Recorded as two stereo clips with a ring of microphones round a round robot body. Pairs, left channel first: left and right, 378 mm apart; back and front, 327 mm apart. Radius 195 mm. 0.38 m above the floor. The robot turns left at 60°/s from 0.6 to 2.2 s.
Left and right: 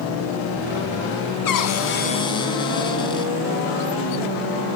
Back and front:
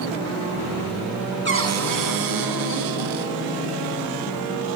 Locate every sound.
1.4 s a cupboard door: 55° left, 2.5 m; by 3.3 s 10° left, 2.5 m